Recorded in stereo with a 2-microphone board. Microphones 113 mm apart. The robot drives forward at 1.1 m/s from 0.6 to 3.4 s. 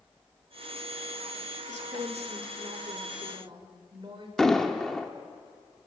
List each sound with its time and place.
1.7 s a woman speaking: 75° right (ahead or behind), 2.5 m; by 4.3 s 45° right (ahead or behind), 3 m
4.4 s an explosion: 5° left (ahead or behind), 1.3 m